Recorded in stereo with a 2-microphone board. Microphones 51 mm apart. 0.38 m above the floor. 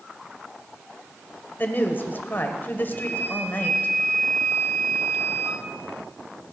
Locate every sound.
1.6 s a woman speaking: 40° left (ahead or behind), 1.2 m
2.9 s a flute: 70° right (ahead or behind), 5.5 m